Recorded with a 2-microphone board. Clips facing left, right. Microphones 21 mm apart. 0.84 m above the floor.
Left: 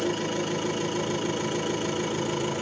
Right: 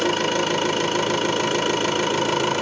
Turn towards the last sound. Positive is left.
turn(degrees=-65)  # may be behind; listen again after turning